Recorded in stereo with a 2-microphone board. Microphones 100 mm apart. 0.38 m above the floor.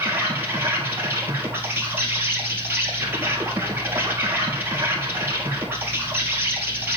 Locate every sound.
0.0 s an insect: 20° right (ahead or behind), 1.8 m